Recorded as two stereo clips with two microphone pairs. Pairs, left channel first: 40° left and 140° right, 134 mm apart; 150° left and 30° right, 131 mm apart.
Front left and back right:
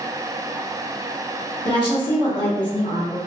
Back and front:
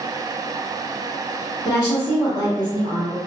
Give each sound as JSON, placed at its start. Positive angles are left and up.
{"t": 1.6, "sound": "a woman speaking", "azimuth_deg": 90, "distance_m": 1.3}